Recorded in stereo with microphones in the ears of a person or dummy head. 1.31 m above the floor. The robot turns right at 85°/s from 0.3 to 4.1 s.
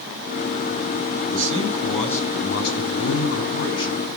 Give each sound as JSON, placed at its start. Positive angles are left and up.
{"t": 1.3, "sound": "a man speaking", "azimuth_deg": -60, "distance_m": 10.0}